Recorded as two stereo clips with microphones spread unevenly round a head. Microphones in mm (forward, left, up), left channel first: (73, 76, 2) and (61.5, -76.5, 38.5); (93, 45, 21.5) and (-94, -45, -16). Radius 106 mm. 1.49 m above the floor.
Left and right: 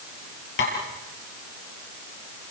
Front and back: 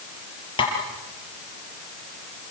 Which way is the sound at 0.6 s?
90° left.